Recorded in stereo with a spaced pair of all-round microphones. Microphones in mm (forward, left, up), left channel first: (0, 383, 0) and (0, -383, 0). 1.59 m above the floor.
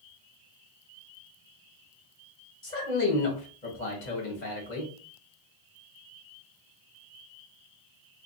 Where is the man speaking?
65° left (ahead or behind), 1.3 m.